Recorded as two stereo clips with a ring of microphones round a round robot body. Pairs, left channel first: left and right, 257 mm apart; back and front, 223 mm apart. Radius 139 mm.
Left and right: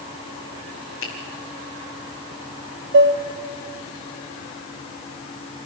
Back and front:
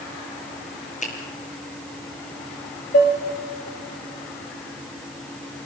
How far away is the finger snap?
About 5 m.